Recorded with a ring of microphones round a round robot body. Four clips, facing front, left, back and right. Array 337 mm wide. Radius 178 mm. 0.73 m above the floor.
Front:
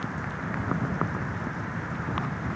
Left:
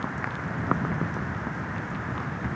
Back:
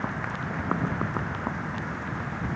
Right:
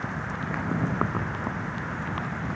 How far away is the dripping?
No dripping in this recording.